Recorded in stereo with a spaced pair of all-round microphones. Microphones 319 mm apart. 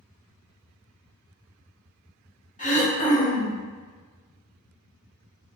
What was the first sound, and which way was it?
Throat clearing, 25° left (ahead or behind).